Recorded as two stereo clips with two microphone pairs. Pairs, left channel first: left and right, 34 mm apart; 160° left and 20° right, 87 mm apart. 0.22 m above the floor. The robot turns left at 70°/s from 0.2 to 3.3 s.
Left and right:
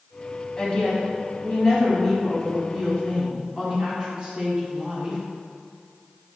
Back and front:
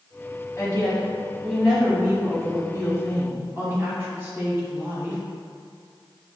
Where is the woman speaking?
130° left, 1.4 m; by 5.2 s 60° right, 1.4 m.